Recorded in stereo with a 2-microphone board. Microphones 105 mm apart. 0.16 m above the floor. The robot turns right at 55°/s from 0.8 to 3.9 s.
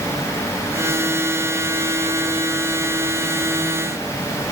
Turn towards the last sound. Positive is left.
No sound to turn to.